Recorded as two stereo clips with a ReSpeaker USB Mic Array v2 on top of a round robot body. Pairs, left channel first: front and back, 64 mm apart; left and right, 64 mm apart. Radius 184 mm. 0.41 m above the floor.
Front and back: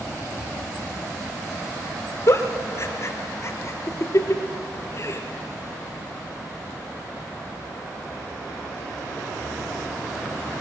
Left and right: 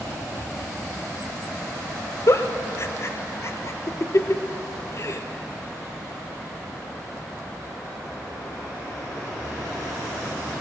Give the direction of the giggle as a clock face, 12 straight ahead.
10 o'clock.